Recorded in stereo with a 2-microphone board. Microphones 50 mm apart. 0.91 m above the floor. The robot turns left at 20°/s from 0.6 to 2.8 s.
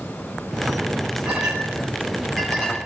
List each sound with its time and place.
1.2 s a clink: 15° right (ahead or behind), 8.5 m; by 2.8 s 15° left (ahead or behind), 8.5 m